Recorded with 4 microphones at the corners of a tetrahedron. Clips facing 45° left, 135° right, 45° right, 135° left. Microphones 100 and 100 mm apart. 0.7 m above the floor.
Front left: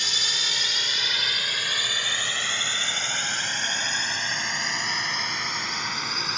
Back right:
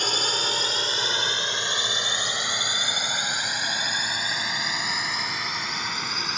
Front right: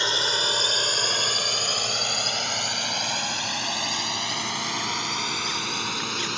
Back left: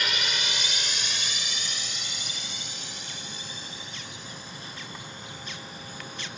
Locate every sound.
0.0 s a drone: 105° right; by 6.4 s 45° right